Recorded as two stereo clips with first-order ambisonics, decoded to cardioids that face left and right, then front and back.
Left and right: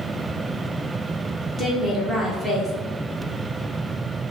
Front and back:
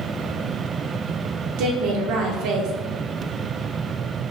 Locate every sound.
1.6 s a woman speaking: 170° left, 0.9 m